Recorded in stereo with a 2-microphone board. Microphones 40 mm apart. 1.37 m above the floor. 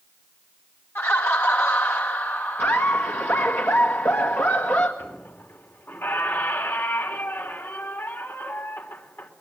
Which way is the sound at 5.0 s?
85° left.